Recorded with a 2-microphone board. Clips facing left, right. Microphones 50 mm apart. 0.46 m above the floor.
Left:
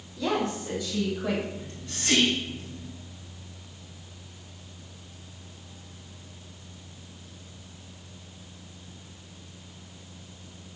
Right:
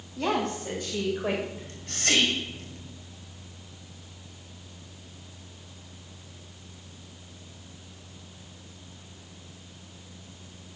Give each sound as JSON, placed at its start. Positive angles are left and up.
{"t": 0.2, "sound": "a woman speaking", "side_deg": -55, "distance_m": 3.0}
{"t": 1.6, "sound": "whispering", "side_deg": -65, "distance_m": 2.0}